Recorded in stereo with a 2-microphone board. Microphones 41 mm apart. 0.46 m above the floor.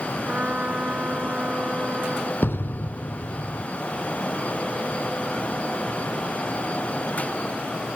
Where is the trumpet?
45° right (ahead or behind).